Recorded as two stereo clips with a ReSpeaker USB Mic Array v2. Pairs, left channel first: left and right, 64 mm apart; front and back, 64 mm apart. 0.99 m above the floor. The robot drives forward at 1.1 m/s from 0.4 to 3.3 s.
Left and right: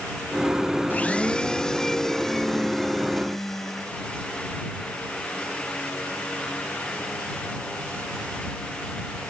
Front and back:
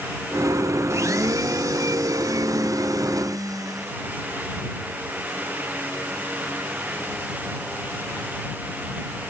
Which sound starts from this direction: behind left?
A blender, at 0.9 s.